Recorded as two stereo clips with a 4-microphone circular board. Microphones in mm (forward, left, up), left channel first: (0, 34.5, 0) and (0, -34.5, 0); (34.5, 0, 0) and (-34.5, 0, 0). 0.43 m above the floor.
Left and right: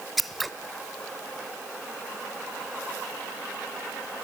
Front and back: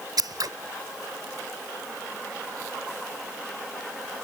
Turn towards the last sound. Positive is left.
turn(degrees=180)